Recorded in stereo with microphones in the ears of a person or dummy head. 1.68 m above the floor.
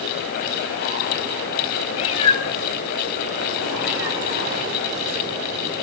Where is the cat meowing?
35° left (ahead or behind), 3.5 m; by 5.7 s 50° right (ahead or behind), 2.5 m.